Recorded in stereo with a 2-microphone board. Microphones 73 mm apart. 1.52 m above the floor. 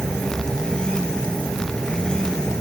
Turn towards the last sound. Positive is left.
turn(degrees=10)  # may be behind; listen again after turning